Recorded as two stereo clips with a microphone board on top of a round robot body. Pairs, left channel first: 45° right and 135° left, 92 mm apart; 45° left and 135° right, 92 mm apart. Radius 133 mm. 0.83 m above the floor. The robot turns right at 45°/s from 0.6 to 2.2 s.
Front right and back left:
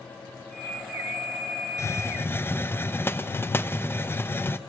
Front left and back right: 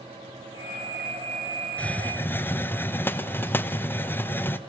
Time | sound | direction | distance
1.8 | a hiss | 20° right | 1.0 m